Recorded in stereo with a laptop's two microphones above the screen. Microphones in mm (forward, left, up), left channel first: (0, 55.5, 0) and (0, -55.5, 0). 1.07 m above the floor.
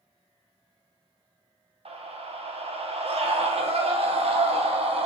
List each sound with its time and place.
1.9 s a scream: 65° right (ahead or behind), 0.5 m